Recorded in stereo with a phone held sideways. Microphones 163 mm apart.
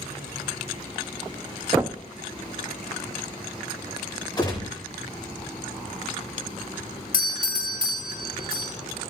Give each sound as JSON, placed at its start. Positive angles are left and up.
{"t": 1.8, "sound": "knocking", "side_deg": -15, "distance_m": 0.5}
{"t": 4.4, "sound": "a gunshot", "side_deg": 25, "distance_m": 4.5}
{"t": 7.1, "sound": "a doorbell", "side_deg": 65, "distance_m": 1.5}